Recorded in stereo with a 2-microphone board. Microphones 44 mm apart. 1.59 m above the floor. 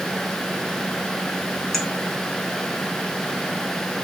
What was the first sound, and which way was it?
A clink, 5° left (ahead or behind).